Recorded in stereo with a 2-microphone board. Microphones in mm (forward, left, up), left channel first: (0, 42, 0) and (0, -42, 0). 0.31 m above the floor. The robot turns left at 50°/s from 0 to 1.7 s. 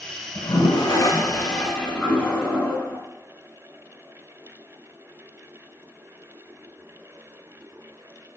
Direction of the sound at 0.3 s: 80° left.